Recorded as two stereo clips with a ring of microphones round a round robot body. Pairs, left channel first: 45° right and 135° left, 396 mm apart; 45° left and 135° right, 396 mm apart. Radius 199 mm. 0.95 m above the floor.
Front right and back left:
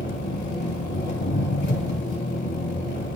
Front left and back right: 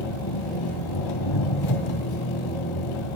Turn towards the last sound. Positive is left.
turn(degrees=20)